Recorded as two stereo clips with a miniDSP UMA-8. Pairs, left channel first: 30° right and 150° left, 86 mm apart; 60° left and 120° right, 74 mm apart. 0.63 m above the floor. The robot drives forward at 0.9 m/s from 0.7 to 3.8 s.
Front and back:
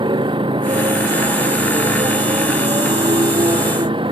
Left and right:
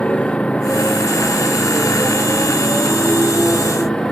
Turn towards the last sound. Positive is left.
turn(degrees=140)